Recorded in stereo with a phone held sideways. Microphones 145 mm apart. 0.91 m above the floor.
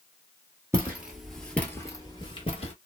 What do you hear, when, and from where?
0.7 s footsteps: 15° right (ahead or behind), 1.2 m; by 2.7 s 45° left (ahead or behind), 1.2 m